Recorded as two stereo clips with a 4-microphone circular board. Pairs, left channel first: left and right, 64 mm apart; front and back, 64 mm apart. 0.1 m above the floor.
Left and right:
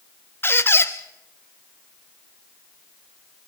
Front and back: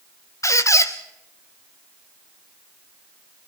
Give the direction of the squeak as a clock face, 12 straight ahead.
11 o'clock.